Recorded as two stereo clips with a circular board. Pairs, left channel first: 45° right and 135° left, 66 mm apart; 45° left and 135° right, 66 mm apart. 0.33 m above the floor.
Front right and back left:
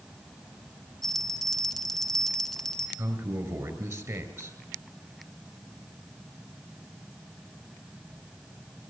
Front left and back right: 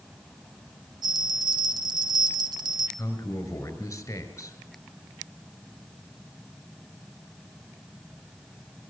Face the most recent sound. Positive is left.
turn(degrees=90)